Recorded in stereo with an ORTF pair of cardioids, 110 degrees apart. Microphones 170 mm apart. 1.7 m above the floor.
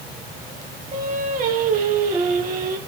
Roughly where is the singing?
Ahead right.